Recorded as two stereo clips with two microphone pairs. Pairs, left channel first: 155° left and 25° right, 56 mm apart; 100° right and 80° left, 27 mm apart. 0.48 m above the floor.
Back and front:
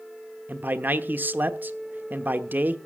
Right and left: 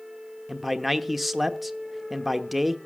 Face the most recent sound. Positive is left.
turn(degrees=0)